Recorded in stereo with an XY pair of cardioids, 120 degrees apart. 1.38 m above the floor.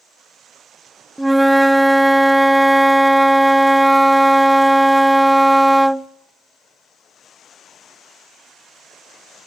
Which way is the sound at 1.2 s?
5° right.